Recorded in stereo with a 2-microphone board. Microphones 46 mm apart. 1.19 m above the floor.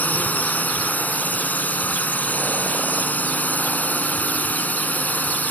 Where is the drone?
40° left (ahead or behind).